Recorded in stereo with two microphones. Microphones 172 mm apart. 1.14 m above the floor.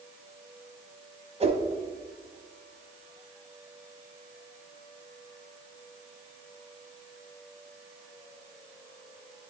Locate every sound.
1.4 s a whoosh: 40° right (ahead or behind), 0.7 m